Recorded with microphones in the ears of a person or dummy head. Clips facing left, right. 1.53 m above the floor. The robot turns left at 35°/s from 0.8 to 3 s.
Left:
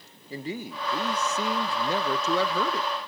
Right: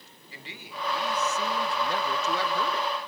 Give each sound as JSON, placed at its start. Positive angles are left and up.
{"t": 0.3, "sound": "a man speaking", "azimuth_deg": 140, "distance_m": 1.6}